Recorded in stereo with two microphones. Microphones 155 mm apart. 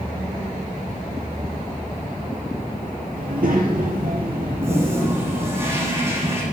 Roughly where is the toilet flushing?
Centre.